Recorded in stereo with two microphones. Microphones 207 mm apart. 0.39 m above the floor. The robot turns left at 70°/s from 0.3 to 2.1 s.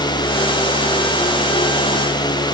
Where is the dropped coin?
No dropped coin in this recording.